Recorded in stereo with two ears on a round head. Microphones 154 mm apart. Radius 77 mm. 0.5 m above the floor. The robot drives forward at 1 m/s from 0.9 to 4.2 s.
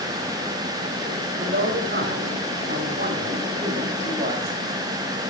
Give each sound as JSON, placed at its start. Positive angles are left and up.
{"t": 1.4, "sound": "a man speaking", "side_deg": -60, "distance_m": 2.5}